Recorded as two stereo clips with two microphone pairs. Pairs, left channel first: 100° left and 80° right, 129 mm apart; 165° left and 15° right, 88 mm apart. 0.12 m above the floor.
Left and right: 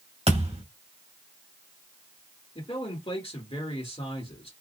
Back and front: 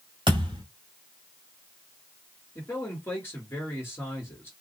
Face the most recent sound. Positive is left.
turn(degrees=110)